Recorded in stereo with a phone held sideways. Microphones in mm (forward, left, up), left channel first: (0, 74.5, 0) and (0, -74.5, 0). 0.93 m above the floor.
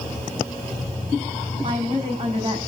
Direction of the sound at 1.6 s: 35° right (ahead or behind).